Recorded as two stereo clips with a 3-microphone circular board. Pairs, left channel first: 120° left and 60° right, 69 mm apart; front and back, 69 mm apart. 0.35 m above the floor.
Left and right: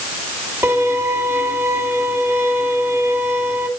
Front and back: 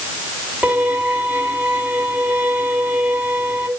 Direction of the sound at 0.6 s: 110° right.